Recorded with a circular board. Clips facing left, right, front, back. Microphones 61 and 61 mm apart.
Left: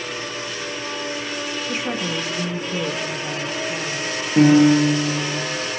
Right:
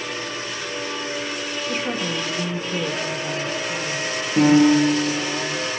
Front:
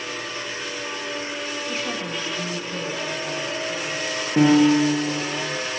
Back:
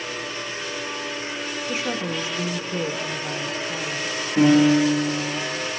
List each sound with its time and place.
1.7 s a woman speaking: 160° left, 1.0 m
4.4 s a piano: 25° left, 8 m